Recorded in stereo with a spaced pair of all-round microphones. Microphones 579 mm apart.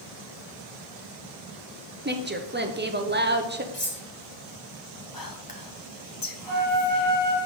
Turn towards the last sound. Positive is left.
turn(degrees=-50)  # may be behind; listen again after turning